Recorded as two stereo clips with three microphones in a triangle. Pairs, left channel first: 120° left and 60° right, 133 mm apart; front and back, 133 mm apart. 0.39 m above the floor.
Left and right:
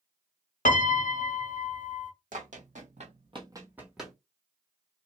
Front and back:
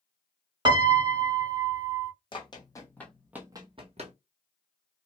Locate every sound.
0.7 s a piano: 125° left, 0.6 m
2.3 s running footsteps: 50° right, 1.2 m; by 4.2 s 150° right, 1.0 m